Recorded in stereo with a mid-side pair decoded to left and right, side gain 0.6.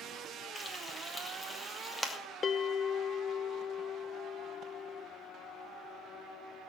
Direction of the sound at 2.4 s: 30° left.